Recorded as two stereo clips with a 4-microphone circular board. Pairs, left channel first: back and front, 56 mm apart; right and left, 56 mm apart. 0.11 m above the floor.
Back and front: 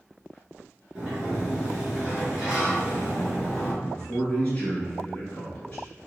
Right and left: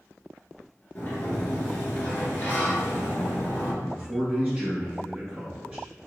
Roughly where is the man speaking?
Behind left.